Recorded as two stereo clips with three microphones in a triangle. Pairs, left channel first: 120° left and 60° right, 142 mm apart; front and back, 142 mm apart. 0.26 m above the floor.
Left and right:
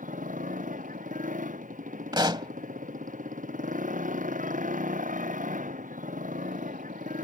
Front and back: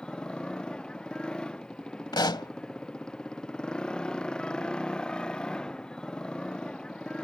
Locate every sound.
0.0 s a motorcycle: 85° right
2.1 s a pop: 30° right